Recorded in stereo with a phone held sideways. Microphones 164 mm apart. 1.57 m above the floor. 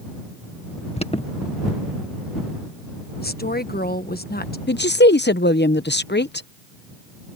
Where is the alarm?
35° left (ahead or behind).